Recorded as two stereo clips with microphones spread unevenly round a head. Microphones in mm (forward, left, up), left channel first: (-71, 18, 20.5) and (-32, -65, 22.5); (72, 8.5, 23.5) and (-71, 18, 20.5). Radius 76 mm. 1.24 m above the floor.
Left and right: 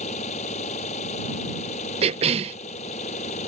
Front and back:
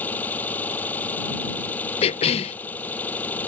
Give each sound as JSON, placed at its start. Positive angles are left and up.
{"t": 0.0, "sound": "an engine running", "azimuth_deg": 75}
{"t": 2.0, "sound": "a cough", "azimuth_deg": -55}